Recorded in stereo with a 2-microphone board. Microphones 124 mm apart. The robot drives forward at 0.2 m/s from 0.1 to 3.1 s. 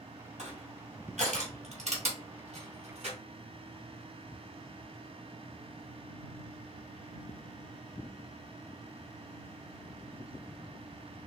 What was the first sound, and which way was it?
Crushing, 65° right (ahead or behind).